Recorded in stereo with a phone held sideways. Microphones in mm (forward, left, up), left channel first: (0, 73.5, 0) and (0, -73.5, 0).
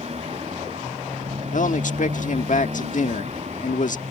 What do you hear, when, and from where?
0.0 s a motorcycle: 50° right (ahead or behind)
1.5 s a man speaking: 65° left (ahead or behind)